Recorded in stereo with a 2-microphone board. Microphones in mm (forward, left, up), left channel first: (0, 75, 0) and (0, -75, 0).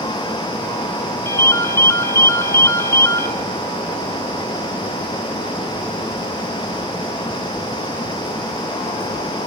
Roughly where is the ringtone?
Centre.